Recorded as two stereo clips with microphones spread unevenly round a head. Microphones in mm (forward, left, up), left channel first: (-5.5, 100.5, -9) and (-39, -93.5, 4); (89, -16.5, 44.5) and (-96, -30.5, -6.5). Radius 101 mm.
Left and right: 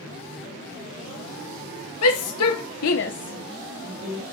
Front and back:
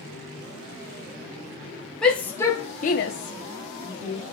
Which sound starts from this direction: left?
A shout, at 2.0 s.